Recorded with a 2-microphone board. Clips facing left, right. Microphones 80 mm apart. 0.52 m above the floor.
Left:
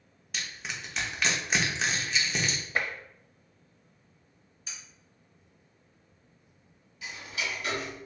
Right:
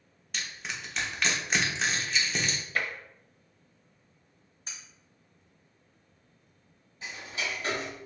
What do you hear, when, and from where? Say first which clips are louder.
0.3 s crushing: even; centre (ahead or behind), 1.0 m
2.8 s tapping: left 1 dB; 25° left (ahead or behind), 0.7 m
4.7 s cutlery clinking: even; 40° right (ahead or behind), 1.9 m
7.0 s ticking: even; 35° right (ahead or behind), 1.9 m